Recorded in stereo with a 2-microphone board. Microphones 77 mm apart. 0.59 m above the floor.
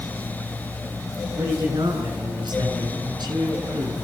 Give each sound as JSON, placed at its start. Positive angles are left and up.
{"t": 1.4, "sound": "a man speaking", "side_deg": -75, "distance_m": 8.0}